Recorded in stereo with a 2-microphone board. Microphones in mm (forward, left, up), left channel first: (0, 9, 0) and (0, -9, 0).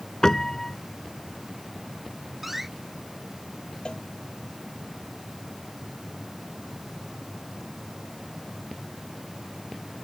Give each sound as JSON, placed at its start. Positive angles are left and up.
{"t": 0.2, "sound": "a piano", "side_deg": 35}
{"t": 2.4, "sound": "a door slam", "side_deg": -10}
{"t": 3.9, "sound": "a cowbell", "side_deg": 60}